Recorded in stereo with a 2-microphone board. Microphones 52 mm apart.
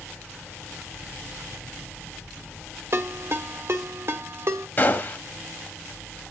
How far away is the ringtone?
About 1.2 m.